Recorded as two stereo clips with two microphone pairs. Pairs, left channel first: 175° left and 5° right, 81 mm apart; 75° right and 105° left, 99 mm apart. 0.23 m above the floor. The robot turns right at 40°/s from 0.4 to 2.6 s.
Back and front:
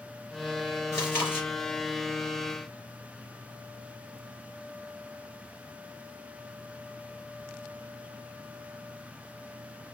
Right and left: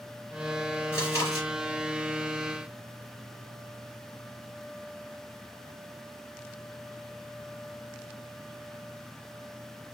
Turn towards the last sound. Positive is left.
turn(degrees=-70)